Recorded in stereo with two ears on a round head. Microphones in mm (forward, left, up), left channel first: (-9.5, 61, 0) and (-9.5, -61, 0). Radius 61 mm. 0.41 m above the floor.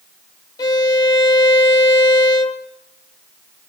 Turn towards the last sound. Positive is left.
turn(degrees=30)  # may be behind; listen again after turning